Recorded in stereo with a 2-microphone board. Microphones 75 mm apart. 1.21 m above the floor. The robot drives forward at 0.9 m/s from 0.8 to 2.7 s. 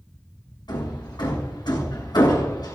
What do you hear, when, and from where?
0.7 s hammering: 85° left, 6.5 m; by 2.8 s 70° left (ahead or behind), 6.5 m